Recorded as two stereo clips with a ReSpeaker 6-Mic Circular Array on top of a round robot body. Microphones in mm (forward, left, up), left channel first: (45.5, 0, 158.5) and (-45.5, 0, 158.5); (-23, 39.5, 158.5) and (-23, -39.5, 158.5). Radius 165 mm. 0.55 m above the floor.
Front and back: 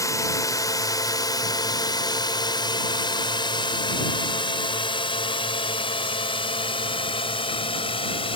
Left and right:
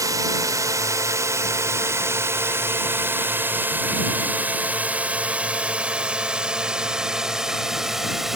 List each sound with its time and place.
0.0 s a drone: 50° right; by 8.4 s 5° right